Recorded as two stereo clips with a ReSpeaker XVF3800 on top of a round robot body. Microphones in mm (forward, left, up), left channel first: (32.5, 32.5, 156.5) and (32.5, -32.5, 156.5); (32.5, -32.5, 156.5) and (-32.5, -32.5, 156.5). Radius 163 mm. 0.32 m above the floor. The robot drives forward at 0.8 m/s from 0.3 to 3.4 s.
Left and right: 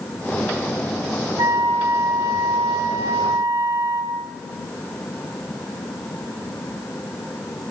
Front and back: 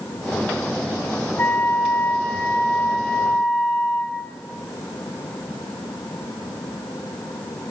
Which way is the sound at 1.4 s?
60° right.